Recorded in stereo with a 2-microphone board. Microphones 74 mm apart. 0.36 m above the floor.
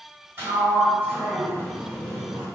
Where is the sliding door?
30° right (ahead or behind), 1.7 m.